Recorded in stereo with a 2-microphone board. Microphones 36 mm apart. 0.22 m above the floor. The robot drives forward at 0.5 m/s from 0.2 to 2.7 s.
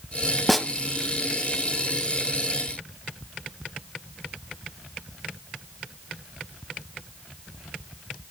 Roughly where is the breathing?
I don't hear breathing.